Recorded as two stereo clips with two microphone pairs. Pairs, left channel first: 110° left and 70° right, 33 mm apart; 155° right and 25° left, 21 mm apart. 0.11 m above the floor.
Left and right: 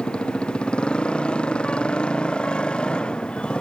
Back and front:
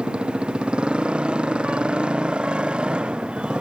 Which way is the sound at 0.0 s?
50° left.